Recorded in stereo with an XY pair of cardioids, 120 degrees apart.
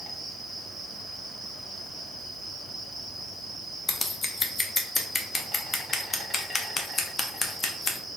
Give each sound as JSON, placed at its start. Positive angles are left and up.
{"t": 0.0, "sound": "an insect", "azimuth_deg": -20, "distance_m": 1.2}
{"t": 3.9, "sound": "scissors", "azimuth_deg": 35, "distance_m": 0.7}